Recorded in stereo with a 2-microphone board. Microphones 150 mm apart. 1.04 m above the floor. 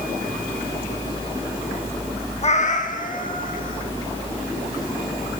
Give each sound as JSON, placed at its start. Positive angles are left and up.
{"t": 2.4, "sound": "a cat meowing", "side_deg": 45, "distance_m": 0.6}